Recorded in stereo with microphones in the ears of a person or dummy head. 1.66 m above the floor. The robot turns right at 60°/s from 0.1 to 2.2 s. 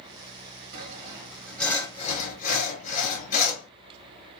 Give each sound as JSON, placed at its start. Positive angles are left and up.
{"t": 0.7, "sound": "sawing", "azimuth_deg": -45, "distance_m": 1.1}